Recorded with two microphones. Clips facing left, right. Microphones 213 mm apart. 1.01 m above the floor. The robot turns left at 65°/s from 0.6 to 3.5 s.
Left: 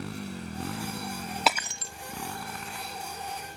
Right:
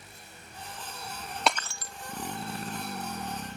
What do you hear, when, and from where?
0.0 s a motorcycle: 95° left; by 3.6 s 95° right
1.5 s breaking glass: 5° left (ahead or behind); by 1.9 s 30° left (ahead or behind)